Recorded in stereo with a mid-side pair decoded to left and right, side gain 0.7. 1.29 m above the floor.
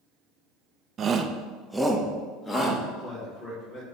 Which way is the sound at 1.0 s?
35° right.